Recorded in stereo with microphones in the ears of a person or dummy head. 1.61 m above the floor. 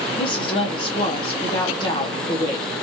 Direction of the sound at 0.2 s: 30° left (ahead or behind).